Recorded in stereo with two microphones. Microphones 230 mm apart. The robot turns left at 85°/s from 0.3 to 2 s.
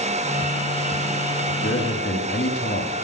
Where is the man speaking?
130° left, 2.5 m; by 3.0 s 85° left, 2.5 m.